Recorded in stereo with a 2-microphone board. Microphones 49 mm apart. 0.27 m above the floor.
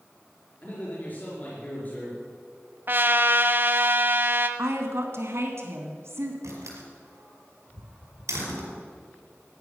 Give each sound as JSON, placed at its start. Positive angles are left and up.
{"t": 0.6, "sound": "a man speaking", "side_deg": 35, "distance_m": 4.5}
{"t": 2.9, "sound": "a trumpet", "side_deg": -45, "distance_m": 0.9}
{"t": 4.6, "sound": "a woman speaking", "side_deg": -60, "distance_m": 2.5}
{"t": 6.4, "sound": "a door slam", "side_deg": -80, "distance_m": 5.0}